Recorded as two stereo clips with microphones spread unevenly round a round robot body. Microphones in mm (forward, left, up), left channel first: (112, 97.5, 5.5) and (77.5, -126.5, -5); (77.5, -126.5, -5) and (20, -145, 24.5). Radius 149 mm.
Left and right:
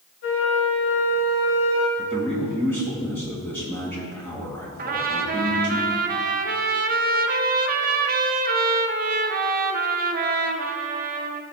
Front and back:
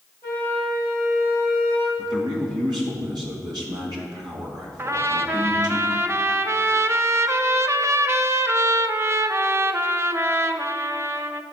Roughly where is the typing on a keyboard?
I don't hear typing on a keyboard.